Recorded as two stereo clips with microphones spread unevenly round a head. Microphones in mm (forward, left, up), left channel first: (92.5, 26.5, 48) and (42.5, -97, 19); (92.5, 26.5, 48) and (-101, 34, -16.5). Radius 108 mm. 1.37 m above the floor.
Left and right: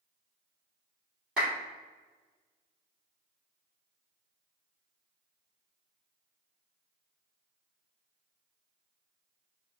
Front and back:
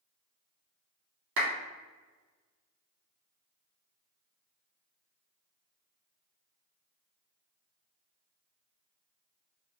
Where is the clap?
160° left, 2.5 m.